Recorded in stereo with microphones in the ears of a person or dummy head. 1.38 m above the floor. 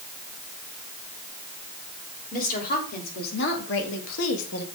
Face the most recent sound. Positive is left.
turn(degrees=80)